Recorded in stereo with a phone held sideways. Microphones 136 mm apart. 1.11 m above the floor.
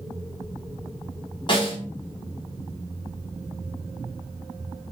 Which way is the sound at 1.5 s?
35° left (ahead or behind).